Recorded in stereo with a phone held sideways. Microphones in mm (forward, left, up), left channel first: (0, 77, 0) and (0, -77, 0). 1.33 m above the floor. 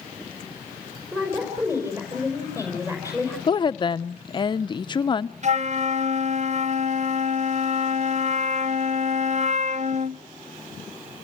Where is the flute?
50° right (ahead or behind), 0.7 m.